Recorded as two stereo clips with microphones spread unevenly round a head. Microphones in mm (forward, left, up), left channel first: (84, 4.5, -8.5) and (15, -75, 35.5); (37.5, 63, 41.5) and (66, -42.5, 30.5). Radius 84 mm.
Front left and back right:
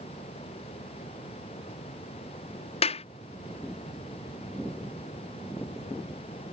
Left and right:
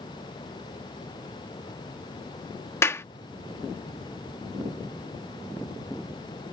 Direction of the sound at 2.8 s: 40° left.